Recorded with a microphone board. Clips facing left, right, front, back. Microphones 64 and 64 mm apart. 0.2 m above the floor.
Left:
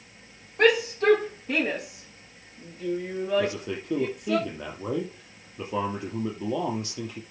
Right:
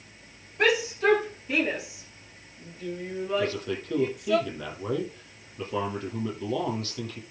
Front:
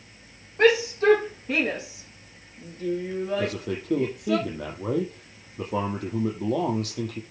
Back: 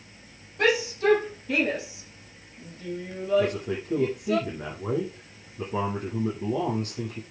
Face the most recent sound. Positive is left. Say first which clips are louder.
# left 1 dB, back 2 dB
turn(degrees=20)